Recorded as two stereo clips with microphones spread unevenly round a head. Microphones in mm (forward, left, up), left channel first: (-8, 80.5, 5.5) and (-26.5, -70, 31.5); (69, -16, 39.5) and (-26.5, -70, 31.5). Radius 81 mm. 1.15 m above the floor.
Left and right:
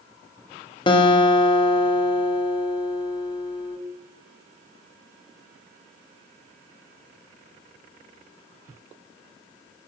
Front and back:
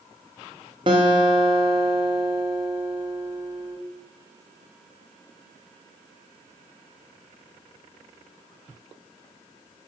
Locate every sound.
0.9 s a guitar: 145° left, 0.8 m